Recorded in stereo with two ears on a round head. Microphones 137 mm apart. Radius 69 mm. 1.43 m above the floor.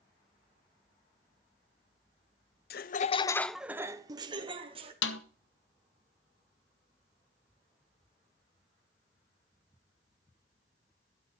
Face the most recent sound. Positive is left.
turn(degrees=85)